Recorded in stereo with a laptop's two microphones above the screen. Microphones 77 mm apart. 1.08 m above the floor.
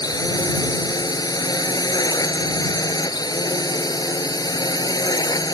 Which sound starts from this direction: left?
A drone, at 0.0 s.